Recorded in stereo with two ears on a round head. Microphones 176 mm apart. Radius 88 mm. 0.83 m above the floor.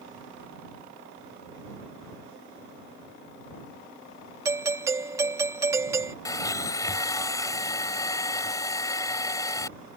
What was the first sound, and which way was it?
A doorbell, 15° right (ahead or behind).